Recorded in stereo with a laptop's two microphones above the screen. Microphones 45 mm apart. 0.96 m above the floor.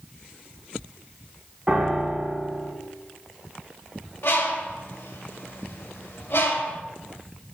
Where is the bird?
80° left, 1.7 m.